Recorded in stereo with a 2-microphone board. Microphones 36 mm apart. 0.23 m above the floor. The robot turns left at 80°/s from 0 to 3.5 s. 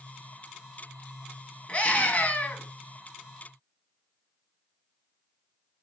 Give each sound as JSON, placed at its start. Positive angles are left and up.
{"t": 1.7, "sound": "a scream", "azimuth_deg": 130, "distance_m": 1.5}